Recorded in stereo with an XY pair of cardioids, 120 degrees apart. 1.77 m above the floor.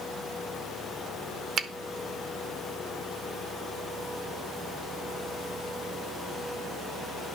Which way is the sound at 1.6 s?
50° right.